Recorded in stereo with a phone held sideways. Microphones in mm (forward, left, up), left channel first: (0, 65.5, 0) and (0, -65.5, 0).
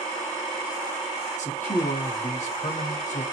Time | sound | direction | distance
1.4 | a man speaking | 65° left (ahead or behind) | 2 m